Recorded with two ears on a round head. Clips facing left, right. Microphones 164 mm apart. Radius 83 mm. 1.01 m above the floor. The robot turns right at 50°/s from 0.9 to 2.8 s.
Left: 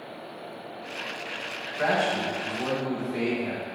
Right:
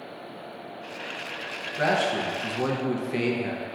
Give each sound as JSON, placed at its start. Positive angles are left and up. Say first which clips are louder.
{"t": 1.8, "sound": "a man speaking", "louder": "right 1 dB", "azimuth_deg": -135, "distance_m": 0.5}